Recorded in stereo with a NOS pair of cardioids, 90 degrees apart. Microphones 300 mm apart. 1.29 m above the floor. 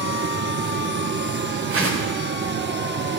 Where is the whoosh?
45° right, 4 m.